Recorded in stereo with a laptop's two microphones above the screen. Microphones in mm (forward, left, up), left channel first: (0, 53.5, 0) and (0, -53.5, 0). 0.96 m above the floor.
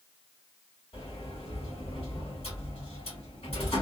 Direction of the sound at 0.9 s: 75° left (ahead or behind).